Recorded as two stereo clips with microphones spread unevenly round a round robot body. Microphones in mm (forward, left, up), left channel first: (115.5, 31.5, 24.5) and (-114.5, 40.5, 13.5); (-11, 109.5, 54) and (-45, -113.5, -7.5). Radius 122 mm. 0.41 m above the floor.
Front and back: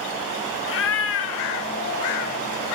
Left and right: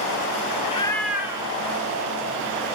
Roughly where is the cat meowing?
Ahead.